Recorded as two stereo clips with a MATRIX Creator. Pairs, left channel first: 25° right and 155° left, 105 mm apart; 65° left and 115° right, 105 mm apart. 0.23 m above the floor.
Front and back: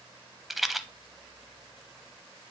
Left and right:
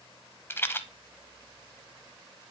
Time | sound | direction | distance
0.5 | a rattle | 70° left | 0.5 m